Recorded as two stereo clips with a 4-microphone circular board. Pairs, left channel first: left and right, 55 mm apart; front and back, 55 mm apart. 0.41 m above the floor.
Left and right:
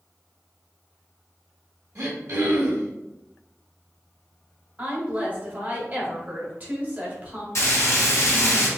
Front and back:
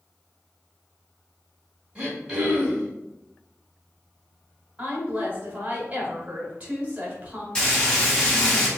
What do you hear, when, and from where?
1.9 s throat clearing: 105° right, 1.9 m
4.8 s a woman speaking: 125° right, 1.9 m
7.5 s frying: 70° left, 2.5 m